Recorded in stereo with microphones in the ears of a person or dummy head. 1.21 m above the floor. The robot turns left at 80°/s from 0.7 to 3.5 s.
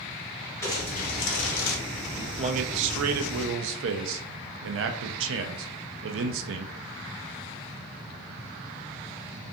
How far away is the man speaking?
About 0.5 m.